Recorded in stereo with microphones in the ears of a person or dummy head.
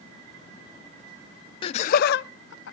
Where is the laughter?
30° left (ahead or behind), 0.5 m; by 2.7 s 75° left (ahead or behind), 1.0 m.